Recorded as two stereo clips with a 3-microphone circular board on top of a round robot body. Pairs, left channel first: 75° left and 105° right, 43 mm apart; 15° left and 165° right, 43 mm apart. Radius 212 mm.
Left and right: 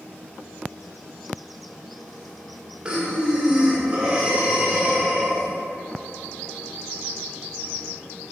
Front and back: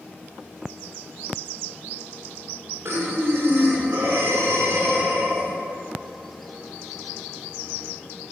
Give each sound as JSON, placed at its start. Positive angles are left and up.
{"t": 2.9, "sound": "breathing", "azimuth_deg": -165, "distance_m": 2.0}